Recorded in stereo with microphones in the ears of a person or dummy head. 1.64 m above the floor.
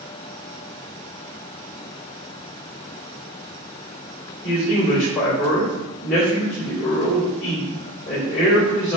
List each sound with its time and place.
4.4 s a man speaking: 40° left (ahead or behind), 2.0 m